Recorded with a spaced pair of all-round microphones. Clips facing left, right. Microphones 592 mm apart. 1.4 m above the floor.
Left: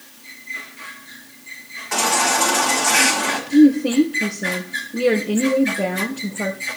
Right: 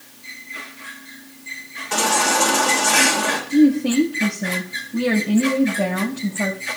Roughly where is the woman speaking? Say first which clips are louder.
Left 2 dB; right.